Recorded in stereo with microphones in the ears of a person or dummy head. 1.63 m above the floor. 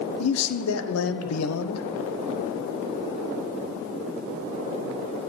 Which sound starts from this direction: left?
A man speaking, at 0.2 s.